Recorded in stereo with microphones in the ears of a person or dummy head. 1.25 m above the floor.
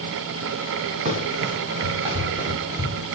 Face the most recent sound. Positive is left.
turn(degrees=-10)  # may be behind; listen again after turning